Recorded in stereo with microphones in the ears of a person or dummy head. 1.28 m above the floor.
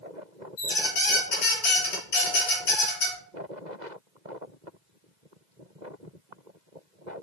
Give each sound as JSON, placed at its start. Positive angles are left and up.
{"t": 0.6, "sound": "a squeak", "side_deg": 50, "distance_m": 1.0}